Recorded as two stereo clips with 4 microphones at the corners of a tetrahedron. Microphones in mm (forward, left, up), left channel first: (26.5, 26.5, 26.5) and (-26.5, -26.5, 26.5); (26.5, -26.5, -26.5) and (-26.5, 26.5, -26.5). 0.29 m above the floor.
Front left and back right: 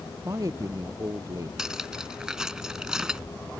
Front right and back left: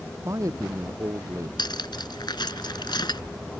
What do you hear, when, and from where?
0.2 s a man speaking: straight behind
1.6 s cutlery clinking: 55° right